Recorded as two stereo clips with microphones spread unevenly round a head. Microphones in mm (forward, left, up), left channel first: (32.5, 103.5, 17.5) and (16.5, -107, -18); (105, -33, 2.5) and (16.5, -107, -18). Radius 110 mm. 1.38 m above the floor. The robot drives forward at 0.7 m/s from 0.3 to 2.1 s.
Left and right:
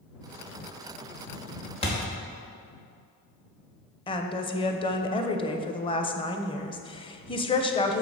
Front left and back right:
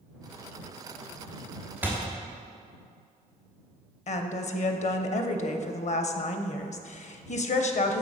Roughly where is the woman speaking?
Ahead.